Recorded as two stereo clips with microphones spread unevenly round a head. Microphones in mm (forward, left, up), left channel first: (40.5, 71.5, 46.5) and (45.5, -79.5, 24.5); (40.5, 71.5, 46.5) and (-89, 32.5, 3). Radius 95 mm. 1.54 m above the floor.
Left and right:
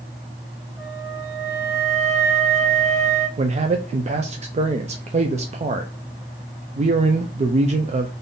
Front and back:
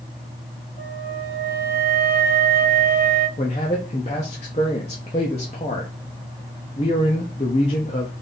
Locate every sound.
0.8 s a flute: 15° right, 1.8 m
3.4 s a man speaking: 40° right, 0.5 m